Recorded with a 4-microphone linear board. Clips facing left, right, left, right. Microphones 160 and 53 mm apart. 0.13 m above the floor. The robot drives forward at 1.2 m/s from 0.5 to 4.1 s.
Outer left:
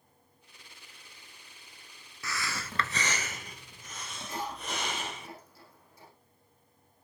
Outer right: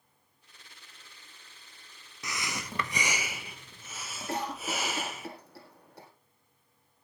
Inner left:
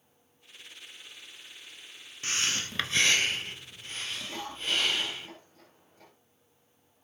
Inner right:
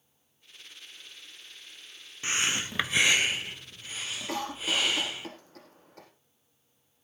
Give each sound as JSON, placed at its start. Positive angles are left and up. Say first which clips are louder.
{"t": 2.2, "sound": "breathing", "louder": "even, inner right 2 dB", "side_deg": -20, "distance_m": 0.8}
{"t": 4.3, "sound": "a cough", "louder": "outer right 4 dB, inner right 3 dB", "side_deg": -70, "distance_m": 6.0}